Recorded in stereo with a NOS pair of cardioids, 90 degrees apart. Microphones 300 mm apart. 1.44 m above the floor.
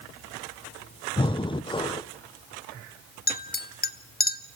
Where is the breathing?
15° left, 0.8 m.